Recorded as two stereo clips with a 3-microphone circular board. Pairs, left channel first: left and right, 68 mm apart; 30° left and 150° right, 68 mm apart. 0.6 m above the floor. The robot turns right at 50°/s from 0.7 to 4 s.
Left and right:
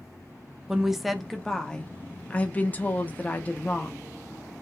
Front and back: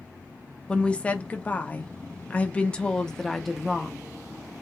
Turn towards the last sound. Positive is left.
turn(degrees=140)